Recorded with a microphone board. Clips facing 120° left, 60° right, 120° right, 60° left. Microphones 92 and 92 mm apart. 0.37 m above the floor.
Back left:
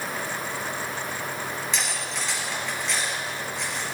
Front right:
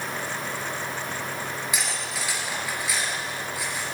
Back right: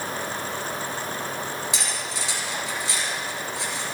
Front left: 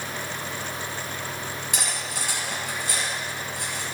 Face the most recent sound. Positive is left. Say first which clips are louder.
# even, back right 1 dB
turn(degrees=25)